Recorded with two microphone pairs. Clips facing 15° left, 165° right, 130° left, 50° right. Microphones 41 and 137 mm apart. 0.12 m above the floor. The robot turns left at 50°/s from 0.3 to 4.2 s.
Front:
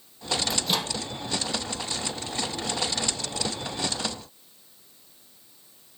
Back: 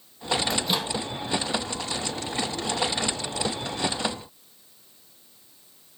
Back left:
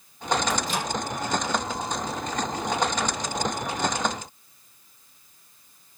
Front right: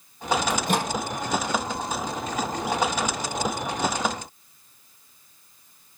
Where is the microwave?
65° right, 2.5 m; by 0.9 s 85° right, 2.5 m.